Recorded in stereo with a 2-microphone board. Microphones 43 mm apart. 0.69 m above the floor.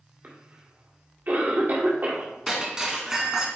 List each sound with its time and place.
0.2 s a cough: 45° right (ahead or behind), 1.8 m
2.5 s breaking glass: 15° right (ahead or behind), 2 m